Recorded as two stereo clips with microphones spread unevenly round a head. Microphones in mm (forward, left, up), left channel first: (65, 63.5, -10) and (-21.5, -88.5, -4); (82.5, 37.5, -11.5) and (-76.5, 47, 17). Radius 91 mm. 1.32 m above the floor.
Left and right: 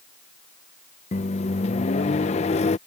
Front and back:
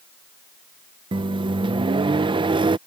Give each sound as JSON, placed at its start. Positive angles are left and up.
{"t": 1.1, "sound": "a microwave", "azimuth_deg": 120}